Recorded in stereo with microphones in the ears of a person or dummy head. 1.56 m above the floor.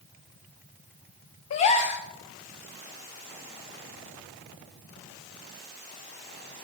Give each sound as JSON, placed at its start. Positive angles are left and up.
{"t": 1.5, "sound": "a gasp", "side_deg": 25, "distance_m": 0.8}